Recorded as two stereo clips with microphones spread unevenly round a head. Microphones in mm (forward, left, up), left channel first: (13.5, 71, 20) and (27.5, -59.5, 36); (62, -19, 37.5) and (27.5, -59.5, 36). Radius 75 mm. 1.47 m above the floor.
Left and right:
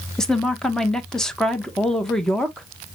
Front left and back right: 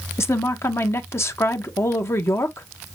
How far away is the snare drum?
I don't hear a snare drum.